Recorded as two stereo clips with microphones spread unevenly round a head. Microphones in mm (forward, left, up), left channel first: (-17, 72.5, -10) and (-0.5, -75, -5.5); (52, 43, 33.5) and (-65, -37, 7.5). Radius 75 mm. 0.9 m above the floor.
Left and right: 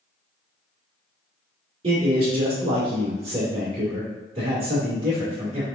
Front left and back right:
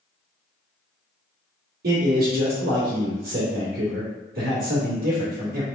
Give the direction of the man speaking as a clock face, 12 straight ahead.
5 o'clock.